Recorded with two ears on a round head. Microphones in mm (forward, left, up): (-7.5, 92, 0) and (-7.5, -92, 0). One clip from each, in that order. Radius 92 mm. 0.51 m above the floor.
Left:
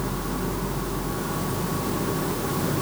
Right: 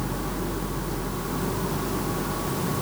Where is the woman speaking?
I don't hear a woman speaking.